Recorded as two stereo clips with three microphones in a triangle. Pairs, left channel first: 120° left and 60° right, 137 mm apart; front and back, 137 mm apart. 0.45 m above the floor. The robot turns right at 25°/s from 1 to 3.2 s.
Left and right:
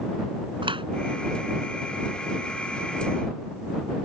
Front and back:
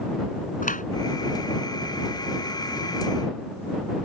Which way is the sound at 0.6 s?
10° right.